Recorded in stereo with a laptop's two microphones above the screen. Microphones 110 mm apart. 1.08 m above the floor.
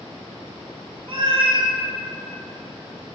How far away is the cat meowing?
About 0.6 m.